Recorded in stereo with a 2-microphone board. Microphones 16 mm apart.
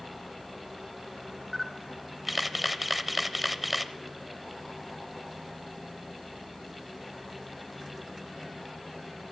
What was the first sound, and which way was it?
A camera shutter, 10° right (ahead or behind).